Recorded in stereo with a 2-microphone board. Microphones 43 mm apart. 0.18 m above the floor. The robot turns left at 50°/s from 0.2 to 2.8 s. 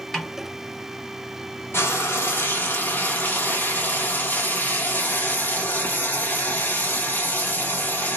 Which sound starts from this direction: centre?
A snare drum, at 0.1 s.